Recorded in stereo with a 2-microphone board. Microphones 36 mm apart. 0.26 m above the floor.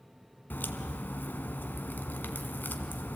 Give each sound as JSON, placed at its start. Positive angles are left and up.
{"t": 0.5, "sound": "a crack", "side_deg": 65, "distance_m": 1.1}